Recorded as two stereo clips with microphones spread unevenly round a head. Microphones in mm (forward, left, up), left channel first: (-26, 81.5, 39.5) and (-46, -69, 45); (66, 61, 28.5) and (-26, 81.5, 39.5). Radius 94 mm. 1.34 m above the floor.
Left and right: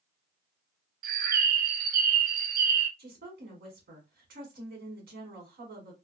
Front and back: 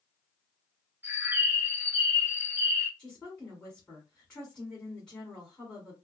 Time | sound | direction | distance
1.0 | a bird | 115° right | 0.5 m
3.0 | a woman speaking | 95° right | 1.3 m